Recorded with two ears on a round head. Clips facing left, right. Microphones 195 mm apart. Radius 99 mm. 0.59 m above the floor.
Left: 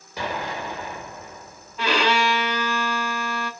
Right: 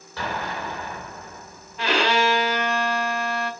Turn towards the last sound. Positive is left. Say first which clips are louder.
# even
turn(degrees=80)